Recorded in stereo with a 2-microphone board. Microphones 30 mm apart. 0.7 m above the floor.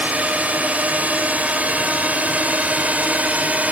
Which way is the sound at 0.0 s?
55° right (ahead or behind).